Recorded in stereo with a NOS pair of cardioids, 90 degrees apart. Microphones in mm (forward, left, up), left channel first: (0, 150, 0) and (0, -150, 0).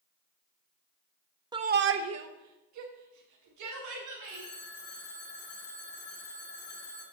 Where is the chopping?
No chopping in this recording.